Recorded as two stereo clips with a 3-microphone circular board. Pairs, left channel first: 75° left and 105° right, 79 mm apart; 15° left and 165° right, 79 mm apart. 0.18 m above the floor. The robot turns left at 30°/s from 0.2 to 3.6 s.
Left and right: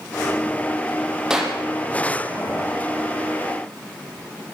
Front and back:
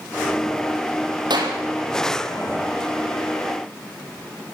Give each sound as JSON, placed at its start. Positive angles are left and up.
{"t": 1.3, "sound": "a clap", "azimuth_deg": 175, "distance_m": 6.0}